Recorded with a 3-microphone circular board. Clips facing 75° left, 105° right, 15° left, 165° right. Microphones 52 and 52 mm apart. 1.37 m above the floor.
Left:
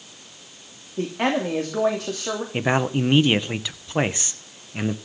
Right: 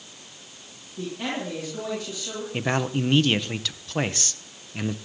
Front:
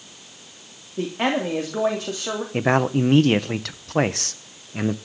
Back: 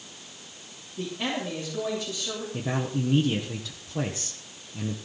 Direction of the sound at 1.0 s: 45° left.